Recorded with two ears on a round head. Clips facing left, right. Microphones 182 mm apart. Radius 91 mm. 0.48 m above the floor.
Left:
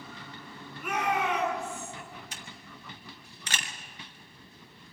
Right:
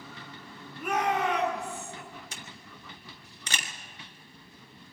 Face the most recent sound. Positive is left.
turn(degrees=-80)